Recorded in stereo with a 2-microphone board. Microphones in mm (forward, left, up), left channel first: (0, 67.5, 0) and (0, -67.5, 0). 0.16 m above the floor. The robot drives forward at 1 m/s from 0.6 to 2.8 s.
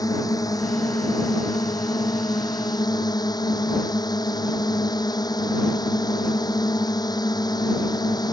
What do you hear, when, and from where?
0.0 s a drone: 25° left (ahead or behind); by 8.3 s 30° left (ahead or behind)